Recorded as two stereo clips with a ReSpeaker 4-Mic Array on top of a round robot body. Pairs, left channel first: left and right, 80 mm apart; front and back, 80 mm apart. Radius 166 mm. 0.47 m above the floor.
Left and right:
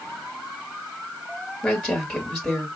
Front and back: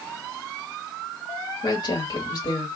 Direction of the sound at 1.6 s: 5° left.